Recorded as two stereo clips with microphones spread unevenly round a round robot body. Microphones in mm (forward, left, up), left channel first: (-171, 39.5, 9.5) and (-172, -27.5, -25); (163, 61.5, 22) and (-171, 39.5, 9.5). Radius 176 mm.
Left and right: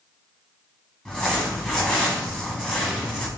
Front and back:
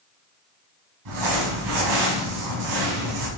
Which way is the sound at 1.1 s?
160° left.